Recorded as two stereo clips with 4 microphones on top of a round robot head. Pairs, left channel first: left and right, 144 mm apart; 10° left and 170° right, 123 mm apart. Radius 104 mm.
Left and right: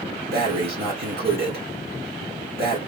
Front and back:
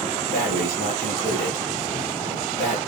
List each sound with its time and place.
0.3 s breathing: 115° right, 4 m